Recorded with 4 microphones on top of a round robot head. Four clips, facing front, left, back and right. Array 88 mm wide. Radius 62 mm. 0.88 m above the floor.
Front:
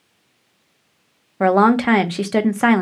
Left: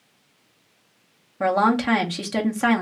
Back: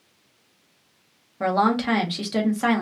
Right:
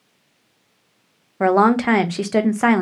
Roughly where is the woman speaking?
Ahead right.